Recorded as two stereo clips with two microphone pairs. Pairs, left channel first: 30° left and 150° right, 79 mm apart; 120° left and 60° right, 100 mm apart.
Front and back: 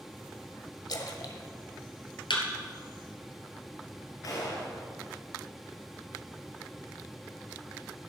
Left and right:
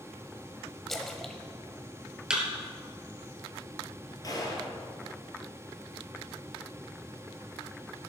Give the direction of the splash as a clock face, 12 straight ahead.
11 o'clock.